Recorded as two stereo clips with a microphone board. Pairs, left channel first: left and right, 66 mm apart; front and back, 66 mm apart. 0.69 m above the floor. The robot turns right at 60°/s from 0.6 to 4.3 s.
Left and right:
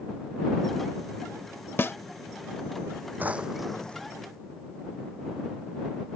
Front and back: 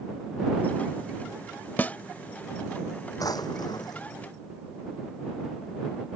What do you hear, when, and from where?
1.8 s a snare drum: 50° left; by 2.0 s 60° left
3.2 s a drawer: 25° right; by 4.1 s 25° left